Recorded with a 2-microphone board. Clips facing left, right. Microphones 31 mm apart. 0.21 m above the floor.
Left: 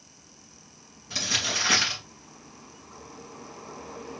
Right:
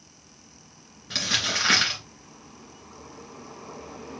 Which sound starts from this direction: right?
Crumpling, at 1.1 s.